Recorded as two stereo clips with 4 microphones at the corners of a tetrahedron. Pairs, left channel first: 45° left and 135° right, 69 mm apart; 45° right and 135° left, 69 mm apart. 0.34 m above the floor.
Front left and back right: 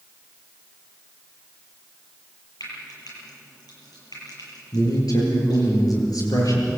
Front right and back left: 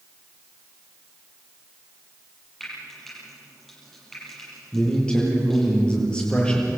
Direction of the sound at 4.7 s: 30° left.